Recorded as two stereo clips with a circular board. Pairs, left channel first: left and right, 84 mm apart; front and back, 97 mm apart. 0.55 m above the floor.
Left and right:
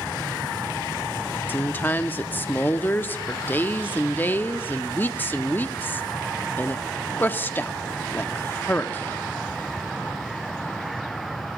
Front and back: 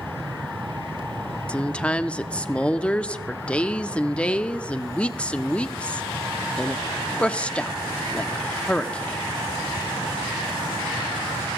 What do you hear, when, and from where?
1.5 s a woman speaking: 60° left, 0.6 m